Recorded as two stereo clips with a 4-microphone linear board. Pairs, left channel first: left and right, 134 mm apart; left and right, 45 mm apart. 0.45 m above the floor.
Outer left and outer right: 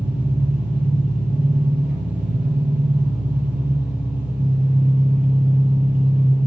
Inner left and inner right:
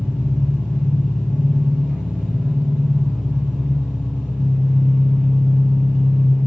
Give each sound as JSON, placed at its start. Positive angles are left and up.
{"t": 0.0, "sound": "an engine running", "side_deg": -10, "distance_m": 5.5}